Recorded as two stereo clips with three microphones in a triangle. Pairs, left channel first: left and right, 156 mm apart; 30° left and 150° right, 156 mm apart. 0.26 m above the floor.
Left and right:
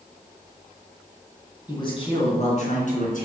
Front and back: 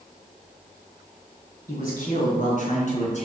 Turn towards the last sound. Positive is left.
turn(degrees=70)